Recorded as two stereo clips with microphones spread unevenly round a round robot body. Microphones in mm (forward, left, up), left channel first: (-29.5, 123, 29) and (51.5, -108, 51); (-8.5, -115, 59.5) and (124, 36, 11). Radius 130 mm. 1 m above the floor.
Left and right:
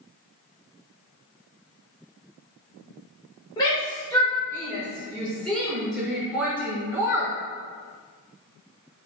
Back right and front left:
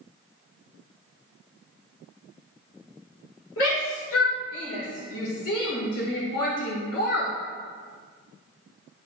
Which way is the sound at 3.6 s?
175° right.